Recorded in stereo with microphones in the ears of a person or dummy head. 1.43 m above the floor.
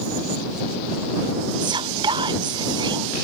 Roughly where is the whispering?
Right.